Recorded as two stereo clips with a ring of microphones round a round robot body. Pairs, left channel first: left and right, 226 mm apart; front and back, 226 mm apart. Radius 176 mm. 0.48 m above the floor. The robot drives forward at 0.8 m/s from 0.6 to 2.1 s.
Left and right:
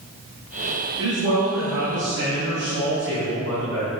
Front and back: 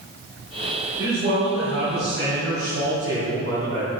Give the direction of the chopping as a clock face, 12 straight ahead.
I don't hear chopping.